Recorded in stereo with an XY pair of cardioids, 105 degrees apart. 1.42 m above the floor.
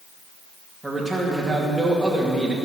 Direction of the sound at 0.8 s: 5° right.